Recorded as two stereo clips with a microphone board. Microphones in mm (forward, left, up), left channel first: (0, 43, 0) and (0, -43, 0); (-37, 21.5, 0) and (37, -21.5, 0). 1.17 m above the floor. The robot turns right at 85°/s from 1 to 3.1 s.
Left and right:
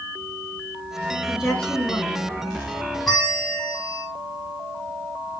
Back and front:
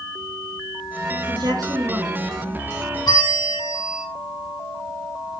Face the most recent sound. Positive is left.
turn(degrees=180)